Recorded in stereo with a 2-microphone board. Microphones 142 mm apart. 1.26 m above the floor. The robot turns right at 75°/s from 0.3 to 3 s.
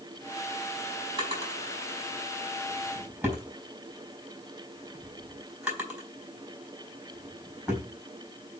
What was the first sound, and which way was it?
A drawer, 35° right (ahead or behind).